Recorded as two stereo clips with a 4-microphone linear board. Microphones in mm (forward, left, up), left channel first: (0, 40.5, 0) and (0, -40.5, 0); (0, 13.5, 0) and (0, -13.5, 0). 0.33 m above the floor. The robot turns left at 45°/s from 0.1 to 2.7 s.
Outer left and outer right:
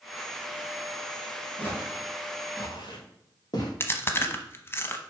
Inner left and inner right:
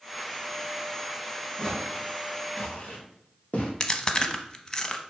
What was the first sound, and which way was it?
Footsteps, 15° left (ahead or behind).